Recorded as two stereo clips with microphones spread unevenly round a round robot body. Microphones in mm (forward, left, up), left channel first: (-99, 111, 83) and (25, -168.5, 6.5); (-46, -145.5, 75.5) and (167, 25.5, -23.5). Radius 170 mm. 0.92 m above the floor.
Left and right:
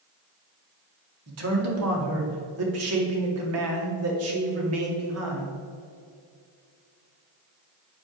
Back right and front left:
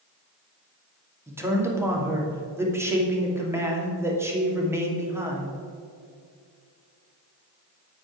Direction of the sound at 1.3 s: 35° right.